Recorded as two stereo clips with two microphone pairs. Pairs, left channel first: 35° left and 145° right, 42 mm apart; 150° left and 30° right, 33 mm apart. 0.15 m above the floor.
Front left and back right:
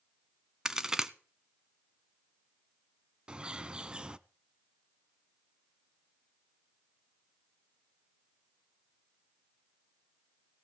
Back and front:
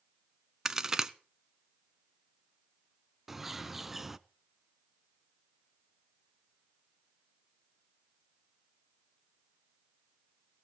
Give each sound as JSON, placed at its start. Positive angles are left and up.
{"t": 0.7, "sound": "a crack", "azimuth_deg": -85, "distance_m": 0.8}
{"t": 3.3, "sound": "a bird", "azimuth_deg": -105, "distance_m": 0.5}